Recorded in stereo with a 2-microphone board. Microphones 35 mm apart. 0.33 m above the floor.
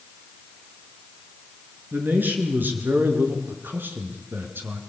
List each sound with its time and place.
1.9 s a man speaking: 55° right (ahead or behind), 4.5 m; by 4.8 s 75° right (ahead or behind), 4 m